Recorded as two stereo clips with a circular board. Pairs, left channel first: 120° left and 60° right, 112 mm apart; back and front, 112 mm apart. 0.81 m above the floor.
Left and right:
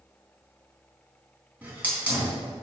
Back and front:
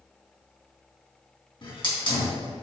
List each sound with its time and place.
1.6 s a hiss: 135° right, 3 m